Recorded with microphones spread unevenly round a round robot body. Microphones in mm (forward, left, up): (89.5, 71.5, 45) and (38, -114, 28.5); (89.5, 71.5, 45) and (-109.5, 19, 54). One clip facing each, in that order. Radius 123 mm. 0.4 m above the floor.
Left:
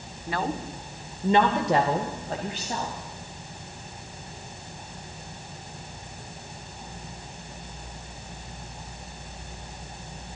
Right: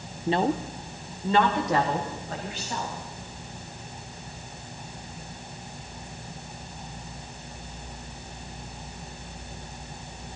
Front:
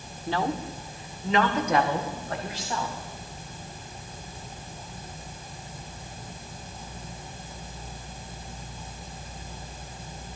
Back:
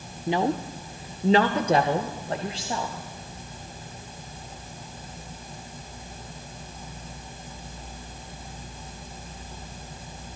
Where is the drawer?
No drawer in this recording.